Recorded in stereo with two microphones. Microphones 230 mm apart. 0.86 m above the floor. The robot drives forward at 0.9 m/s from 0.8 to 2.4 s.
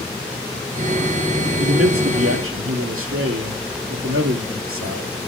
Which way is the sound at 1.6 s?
75° right (ahead or behind).